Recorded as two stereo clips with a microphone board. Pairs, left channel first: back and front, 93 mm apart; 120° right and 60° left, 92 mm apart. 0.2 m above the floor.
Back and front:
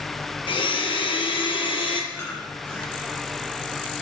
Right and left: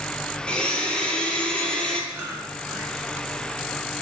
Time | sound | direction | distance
0.5 | a blender | 160° left | 0.9 m
2.1 | chewing | 120° left | 2 m